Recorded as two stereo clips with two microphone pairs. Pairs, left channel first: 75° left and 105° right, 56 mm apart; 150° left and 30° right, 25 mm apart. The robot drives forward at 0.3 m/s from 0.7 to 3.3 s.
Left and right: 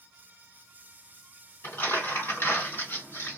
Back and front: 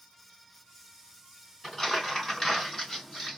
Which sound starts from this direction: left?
Crumpling, at 1.6 s.